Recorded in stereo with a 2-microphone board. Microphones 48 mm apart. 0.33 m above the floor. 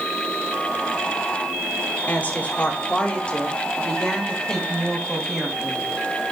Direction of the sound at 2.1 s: 35° left (ahead or behind).